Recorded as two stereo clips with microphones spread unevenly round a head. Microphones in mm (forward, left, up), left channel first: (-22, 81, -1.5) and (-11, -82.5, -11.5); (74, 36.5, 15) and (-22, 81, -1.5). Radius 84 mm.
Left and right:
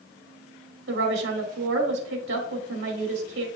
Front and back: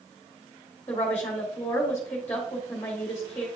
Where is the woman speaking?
105° right, 2 m.